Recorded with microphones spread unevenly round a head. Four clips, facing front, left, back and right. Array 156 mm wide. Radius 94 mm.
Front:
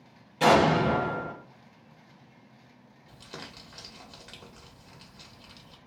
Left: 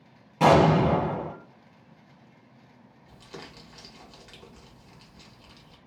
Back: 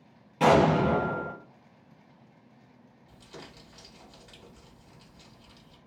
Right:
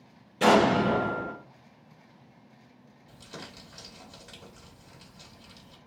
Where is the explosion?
95° left, 1.5 m.